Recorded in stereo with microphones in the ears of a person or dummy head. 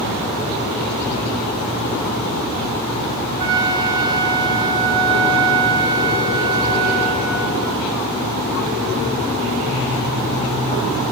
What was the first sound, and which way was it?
A flute, 30° right (ahead or behind).